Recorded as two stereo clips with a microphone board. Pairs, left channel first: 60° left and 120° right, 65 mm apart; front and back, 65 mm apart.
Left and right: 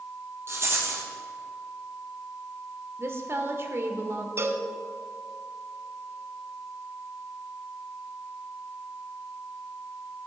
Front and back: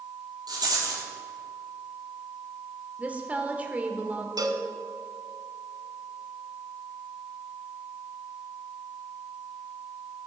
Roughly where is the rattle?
Behind.